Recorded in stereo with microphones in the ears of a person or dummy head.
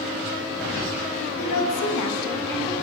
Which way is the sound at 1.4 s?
65° left (ahead or behind).